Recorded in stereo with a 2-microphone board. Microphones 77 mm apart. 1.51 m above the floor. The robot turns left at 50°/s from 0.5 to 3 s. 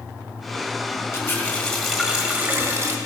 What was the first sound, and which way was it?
A running tap, 35° left.